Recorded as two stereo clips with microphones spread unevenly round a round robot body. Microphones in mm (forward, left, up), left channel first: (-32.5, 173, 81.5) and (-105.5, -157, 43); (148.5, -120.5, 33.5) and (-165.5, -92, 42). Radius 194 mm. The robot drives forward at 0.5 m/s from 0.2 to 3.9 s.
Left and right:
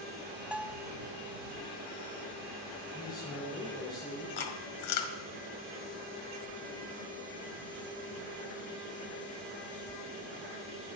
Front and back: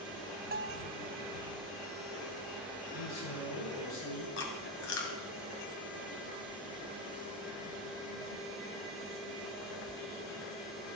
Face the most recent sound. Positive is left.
turn(degrees=50)